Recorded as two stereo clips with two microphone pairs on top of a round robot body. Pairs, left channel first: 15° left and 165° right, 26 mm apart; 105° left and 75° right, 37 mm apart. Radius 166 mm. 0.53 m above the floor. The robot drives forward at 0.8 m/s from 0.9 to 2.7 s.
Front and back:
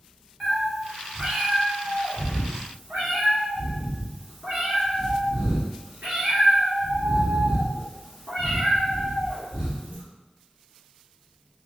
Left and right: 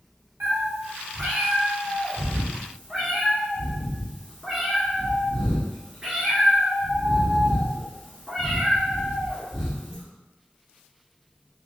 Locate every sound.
0.4 s a cat meowing: 85° right, 0.8 m; by 10.0 s 150° right, 1.6 m